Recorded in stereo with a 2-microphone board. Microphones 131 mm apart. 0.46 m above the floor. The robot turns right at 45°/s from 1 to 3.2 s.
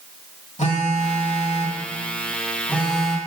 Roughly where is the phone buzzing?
Left.